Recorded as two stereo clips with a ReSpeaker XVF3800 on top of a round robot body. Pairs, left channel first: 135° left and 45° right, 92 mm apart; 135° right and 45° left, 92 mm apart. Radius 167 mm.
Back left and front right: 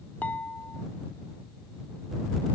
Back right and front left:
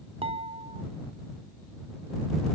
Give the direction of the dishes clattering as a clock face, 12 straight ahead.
10 o'clock.